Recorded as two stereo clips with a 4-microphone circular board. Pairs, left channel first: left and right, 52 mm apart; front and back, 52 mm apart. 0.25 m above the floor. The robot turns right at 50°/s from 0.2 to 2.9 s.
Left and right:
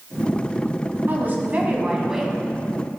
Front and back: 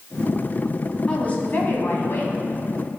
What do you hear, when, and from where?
1.1 s a woman speaking: 60° right, 1.9 m; by 2.3 s straight ahead, 1.9 m